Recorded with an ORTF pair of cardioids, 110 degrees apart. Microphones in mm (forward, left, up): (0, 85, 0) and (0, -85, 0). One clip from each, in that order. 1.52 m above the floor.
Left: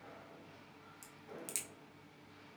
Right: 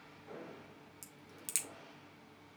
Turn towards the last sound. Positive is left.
turn(degrees=-20)